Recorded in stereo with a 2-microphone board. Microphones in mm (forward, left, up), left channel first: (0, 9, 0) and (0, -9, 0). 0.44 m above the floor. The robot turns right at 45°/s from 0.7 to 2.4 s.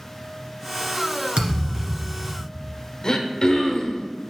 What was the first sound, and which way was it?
A thud, 95° right.